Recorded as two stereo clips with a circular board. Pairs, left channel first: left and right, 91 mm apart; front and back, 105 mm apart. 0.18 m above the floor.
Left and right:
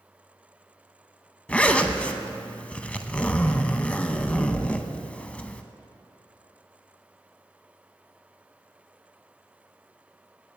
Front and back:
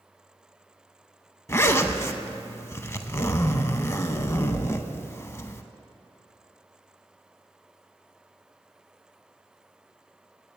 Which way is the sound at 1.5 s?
30° left.